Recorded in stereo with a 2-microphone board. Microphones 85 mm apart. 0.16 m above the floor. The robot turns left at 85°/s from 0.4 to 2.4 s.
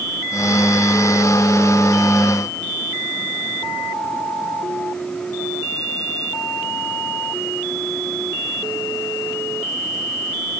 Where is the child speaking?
No child speaking in this recording.